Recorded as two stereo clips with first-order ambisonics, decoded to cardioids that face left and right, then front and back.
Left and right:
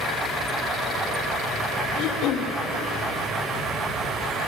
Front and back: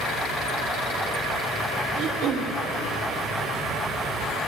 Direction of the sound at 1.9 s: 130° left.